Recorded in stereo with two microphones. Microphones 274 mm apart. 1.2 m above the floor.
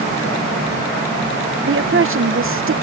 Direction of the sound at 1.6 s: 50° right (ahead or behind).